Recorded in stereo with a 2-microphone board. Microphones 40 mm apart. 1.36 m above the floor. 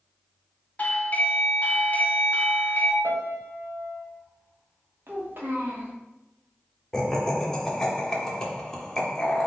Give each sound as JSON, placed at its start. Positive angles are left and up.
{"t": 0.8, "sound": "a doorbell", "side_deg": 40, "distance_m": 0.5}
{"t": 3.0, "sound": "a piano", "side_deg": -75, "distance_m": 0.9}
{"t": 5.1, "sound": "a child speaking", "side_deg": -60, "distance_m": 1.2}
{"t": 6.9, "sound": "laughter", "side_deg": 10, "distance_m": 0.7}